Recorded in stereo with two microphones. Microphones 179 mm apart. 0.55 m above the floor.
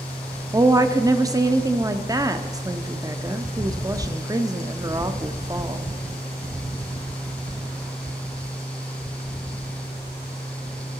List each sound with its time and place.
0.5 s a woman speaking: 20° right (ahead or behind), 0.6 m